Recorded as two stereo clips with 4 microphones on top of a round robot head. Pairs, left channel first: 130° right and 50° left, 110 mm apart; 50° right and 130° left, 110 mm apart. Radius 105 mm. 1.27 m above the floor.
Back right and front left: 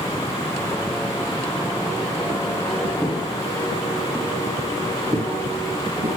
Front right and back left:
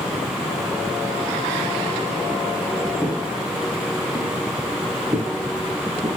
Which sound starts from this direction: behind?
Footsteps, at 3.0 s.